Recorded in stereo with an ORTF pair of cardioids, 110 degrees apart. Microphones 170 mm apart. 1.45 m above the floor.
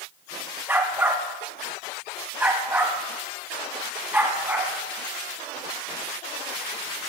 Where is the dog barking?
10° right, 3 m.